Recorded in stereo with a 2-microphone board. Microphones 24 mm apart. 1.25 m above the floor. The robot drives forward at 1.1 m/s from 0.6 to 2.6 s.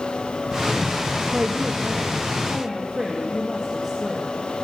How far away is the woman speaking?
About 0.6 m.